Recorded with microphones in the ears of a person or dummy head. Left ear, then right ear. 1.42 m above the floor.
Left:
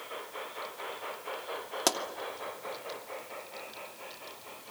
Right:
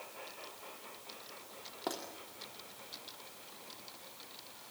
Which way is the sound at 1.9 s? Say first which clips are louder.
Left 10 dB; 80° left.